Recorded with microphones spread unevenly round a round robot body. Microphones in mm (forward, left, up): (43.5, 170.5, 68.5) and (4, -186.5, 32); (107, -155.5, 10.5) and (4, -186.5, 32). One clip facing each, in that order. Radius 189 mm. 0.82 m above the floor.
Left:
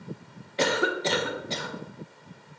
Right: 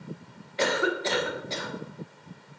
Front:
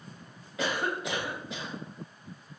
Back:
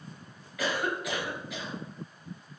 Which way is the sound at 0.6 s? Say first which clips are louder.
Left 1 dB, even; 50° left.